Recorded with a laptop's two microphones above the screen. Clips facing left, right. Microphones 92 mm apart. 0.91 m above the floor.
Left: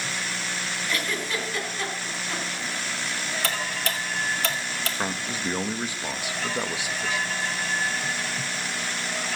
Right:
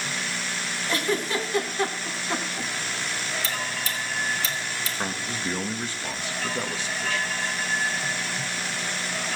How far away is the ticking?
About 1.8 m.